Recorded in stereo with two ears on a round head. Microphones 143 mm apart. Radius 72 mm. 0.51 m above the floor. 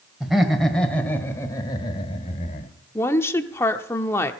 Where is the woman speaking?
15° left (ahead or behind), 1.0 m.